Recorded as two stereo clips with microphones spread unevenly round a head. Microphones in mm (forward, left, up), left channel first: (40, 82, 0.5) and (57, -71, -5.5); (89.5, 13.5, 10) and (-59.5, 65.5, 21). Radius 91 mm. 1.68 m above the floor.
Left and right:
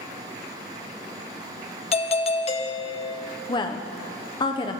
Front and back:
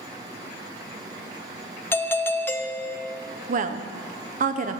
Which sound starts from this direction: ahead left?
A doorbell, at 1.9 s.